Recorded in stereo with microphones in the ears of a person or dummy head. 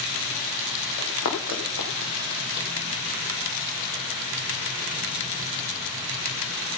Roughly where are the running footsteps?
Left.